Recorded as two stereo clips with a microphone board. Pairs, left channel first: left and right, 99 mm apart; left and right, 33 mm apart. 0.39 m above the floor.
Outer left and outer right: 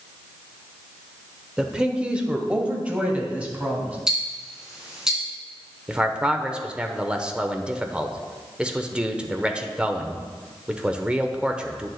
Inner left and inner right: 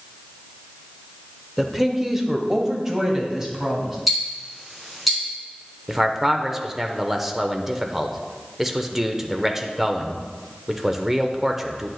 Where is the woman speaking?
5° right (ahead or behind), 0.8 m; by 4.0 s 15° right (ahead or behind), 2.5 m.